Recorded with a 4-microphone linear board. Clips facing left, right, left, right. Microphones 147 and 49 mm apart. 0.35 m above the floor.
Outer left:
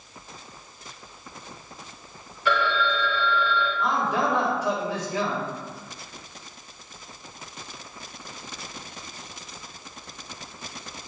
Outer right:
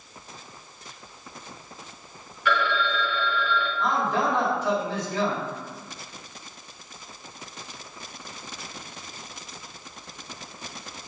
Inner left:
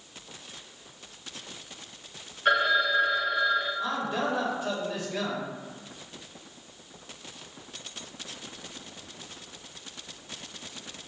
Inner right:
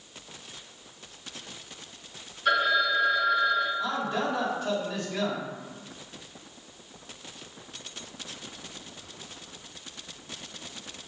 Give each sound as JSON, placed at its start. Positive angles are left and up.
{"t": 2.5, "sound": "a phone ringing", "side_deg": 35, "distance_m": 1.0}
{"t": 3.8, "sound": "a man speaking", "side_deg": 10, "distance_m": 1.3}